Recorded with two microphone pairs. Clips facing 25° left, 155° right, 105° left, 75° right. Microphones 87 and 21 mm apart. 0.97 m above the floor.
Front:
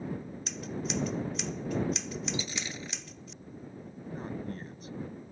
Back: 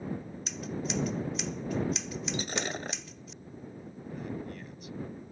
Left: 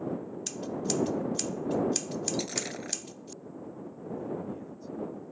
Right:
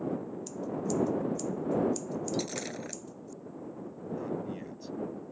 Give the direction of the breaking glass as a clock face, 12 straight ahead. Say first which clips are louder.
Back 4 dB, left 1 dB; 6 o'clock.